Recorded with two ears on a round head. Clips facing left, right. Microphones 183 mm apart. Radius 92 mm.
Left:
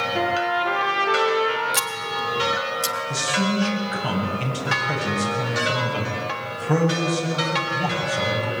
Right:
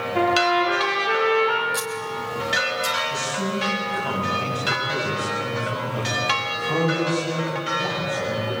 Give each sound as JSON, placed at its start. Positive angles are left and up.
{"t": 0.1, "sound": "a trumpet", "side_deg": 10, "distance_m": 6.5}
{"t": 1.7, "sound": "scissors", "side_deg": 35, "distance_m": 1.8}
{"t": 3.1, "sound": "a man speaking", "side_deg": 85, "distance_m": 7.5}